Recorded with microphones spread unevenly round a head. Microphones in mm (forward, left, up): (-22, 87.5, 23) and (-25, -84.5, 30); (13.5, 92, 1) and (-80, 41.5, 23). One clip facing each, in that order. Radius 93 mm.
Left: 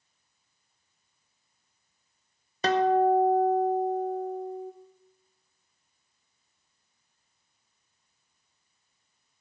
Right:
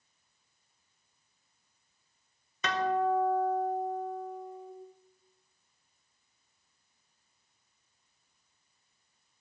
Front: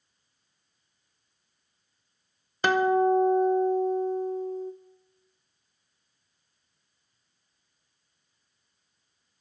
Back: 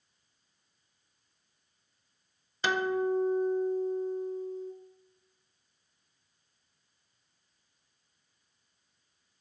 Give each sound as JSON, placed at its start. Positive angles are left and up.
{"t": 2.6, "sound": "a guitar", "azimuth_deg": 45, "distance_m": 0.8}